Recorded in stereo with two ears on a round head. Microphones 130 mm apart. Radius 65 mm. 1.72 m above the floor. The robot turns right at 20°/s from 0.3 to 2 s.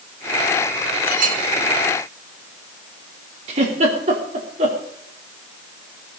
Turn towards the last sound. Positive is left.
turn(degrees=-50)  # may be behind; listen again after turning